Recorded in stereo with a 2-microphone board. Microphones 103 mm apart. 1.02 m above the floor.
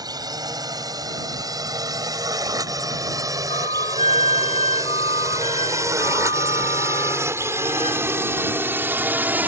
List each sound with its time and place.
0.0 s a drone: 40° right (ahead or behind); by 9.5 s 15° right (ahead or behind)
3.5 s a flute: 90° left